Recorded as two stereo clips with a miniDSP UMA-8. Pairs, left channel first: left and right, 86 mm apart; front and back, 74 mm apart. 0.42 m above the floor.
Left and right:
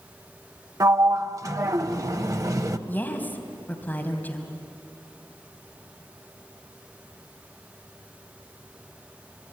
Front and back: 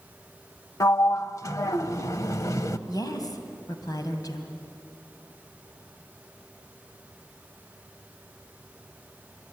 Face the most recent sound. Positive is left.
turn(degrees=25)